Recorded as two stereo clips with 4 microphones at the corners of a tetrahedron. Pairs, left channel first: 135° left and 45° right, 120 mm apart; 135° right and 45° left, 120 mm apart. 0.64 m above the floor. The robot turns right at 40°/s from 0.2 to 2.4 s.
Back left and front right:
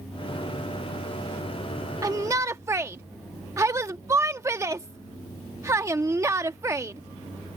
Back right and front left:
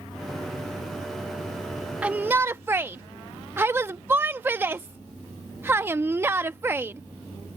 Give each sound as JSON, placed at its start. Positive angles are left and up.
{"t": 2.0, "sound": "a shout", "azimuth_deg": -25}